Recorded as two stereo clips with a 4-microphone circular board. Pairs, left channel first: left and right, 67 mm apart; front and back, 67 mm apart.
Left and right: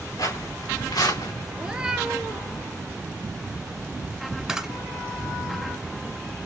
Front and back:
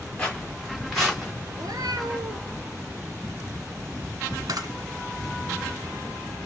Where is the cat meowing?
165° right, 0.9 m.